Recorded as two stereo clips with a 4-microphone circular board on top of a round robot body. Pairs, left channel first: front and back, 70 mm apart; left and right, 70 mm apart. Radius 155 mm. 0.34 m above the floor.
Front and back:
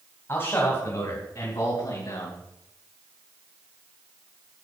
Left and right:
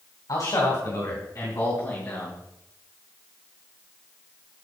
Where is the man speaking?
55° left, 3.5 m; by 2.4 s 20° left, 5 m.